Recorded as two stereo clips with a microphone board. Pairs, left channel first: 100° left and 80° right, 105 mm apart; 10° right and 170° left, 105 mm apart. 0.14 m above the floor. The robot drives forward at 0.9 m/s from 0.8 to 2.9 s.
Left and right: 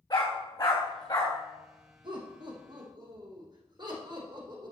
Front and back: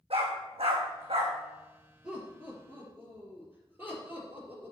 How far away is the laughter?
About 4 m.